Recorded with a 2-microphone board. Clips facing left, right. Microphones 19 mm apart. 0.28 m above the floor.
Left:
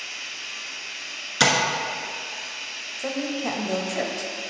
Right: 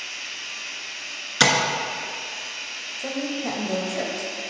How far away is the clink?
No clink in this recording.